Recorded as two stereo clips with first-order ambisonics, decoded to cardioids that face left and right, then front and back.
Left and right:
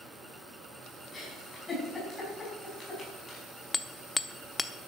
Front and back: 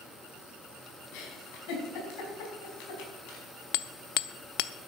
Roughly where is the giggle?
Ahead.